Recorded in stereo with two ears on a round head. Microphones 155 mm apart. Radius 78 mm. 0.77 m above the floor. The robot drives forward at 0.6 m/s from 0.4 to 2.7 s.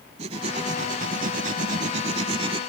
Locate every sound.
0.2 s writing: 35° right (ahead or behind); by 2.6 s 30° right (ahead or behind)